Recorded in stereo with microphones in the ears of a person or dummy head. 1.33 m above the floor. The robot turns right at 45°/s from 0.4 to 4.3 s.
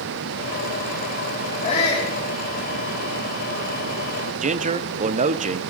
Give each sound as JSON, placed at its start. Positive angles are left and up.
{"t": 1.6, "sound": "a shout", "side_deg": 40, "distance_m": 3.0}
{"t": 4.4, "sound": "a man speaking", "side_deg": -35, "distance_m": 0.8}